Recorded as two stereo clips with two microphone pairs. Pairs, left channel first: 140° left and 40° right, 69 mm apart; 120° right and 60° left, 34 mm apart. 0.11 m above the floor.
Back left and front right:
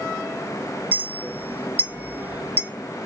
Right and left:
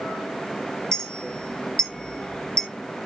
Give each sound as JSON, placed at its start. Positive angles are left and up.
{"t": 0.9, "sound": "a clink", "azimuth_deg": -70, "distance_m": 0.7}